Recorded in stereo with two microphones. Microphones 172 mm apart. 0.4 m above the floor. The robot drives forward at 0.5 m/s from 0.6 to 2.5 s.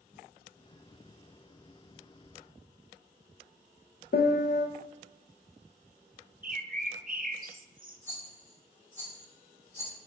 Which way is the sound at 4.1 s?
60° left (ahead or behind).